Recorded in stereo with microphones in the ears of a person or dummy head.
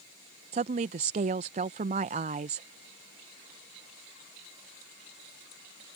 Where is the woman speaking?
40° right (ahead or behind).